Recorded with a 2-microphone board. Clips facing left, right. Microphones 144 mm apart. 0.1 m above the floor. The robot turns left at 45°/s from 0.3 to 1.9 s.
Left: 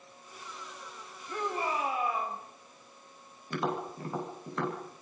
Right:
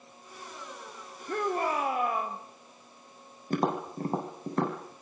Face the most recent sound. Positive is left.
turn(degrees=-40)  # may be behind; listen again after turning